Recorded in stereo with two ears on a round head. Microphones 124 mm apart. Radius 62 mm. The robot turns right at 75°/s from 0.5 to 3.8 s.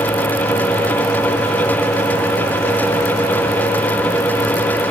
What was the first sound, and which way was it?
Only background noise.